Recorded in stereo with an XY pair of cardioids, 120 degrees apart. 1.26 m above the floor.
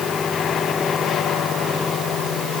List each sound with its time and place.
Only background noise.